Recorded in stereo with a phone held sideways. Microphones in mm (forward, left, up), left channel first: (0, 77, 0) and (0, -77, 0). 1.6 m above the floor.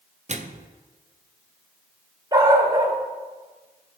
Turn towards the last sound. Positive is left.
turn(degrees=-25)  # may be behind; listen again after turning